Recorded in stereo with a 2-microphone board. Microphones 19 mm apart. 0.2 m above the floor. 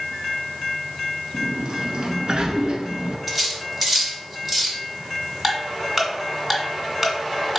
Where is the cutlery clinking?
5° right (ahead or behind), 1.2 m.